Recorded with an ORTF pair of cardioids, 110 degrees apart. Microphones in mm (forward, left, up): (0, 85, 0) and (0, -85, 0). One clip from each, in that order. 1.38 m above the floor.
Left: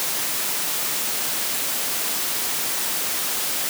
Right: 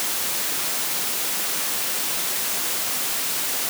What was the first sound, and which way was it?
Only background noise.